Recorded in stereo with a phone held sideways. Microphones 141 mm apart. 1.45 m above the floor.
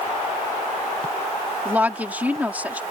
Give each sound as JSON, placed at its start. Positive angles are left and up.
{"t": 1.6, "sound": "a woman speaking", "side_deg": -10}